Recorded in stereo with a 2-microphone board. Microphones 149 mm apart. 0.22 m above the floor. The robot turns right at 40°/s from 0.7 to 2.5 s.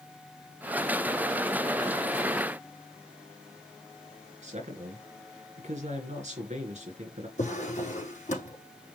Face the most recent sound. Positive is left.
turn(degrees=55)  # may be behind; listen again after turning